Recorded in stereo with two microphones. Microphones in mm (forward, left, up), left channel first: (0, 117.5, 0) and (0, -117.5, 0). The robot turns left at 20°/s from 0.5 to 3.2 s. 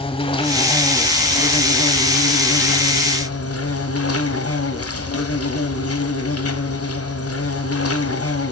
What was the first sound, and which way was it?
An insect, 155° left.